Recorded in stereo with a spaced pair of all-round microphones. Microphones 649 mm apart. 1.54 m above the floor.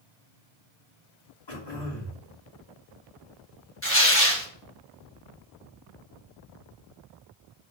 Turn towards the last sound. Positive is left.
turn(degrees=20)  # may be behind; listen again after turning